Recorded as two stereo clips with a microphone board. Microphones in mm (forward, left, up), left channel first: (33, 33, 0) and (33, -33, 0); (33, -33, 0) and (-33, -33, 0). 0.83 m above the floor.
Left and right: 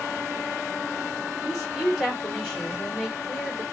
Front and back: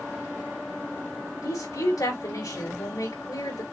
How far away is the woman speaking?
About 3 m.